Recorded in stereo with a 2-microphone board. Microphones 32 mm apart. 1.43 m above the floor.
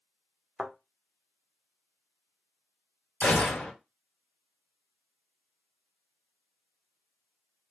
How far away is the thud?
About 0.8 m.